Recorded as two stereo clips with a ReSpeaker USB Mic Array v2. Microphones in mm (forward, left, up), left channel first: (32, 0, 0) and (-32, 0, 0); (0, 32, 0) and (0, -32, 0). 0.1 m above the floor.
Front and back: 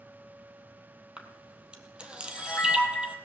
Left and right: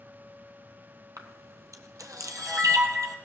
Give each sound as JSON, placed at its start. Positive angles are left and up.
{"t": 1.2, "sound": "a camera shutter", "azimuth_deg": -110, "distance_m": 1.3}